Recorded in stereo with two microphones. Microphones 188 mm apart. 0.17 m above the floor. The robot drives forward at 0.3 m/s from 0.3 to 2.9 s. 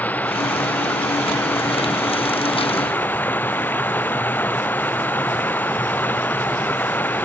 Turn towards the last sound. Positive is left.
turn(degrees=10)  # may be behind; listen again after turning